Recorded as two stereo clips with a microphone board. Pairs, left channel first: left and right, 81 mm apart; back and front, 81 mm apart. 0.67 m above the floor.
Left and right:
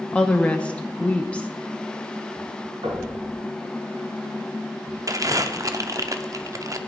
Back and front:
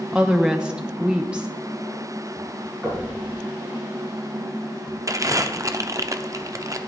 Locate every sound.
0.1 s a woman speaking: 50° left, 0.6 m
2.8 s knocking: 70° right, 5.5 m
5.1 s crumpling: 45° right, 0.6 m